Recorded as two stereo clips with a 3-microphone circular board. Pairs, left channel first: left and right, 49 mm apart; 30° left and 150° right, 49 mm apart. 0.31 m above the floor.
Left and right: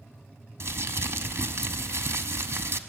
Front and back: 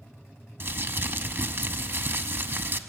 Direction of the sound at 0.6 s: 115° right.